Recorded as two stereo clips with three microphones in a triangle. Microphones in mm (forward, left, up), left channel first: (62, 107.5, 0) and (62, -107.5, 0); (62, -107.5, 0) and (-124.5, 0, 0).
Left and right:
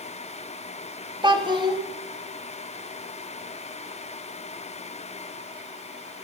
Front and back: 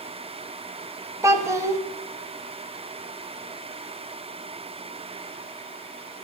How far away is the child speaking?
About 0.7 m.